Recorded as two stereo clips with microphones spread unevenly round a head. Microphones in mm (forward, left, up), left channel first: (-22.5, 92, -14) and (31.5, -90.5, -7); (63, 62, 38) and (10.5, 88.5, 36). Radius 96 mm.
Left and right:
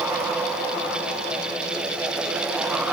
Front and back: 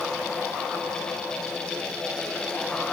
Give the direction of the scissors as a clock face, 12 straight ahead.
I don't hear scissors.